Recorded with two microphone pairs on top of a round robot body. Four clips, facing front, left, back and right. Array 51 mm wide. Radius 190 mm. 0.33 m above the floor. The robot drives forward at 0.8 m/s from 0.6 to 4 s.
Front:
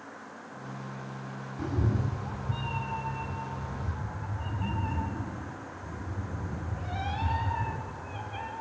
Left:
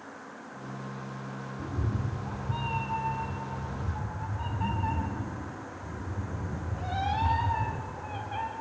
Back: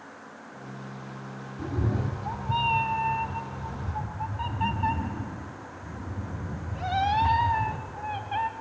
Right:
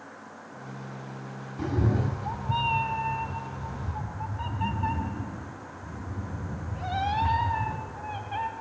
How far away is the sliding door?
No sliding door in this recording.